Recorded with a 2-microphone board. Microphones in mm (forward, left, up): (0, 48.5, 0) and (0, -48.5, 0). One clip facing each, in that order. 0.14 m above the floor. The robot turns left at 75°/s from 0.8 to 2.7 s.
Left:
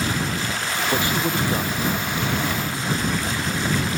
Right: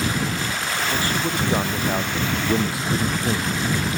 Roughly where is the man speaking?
Ahead left.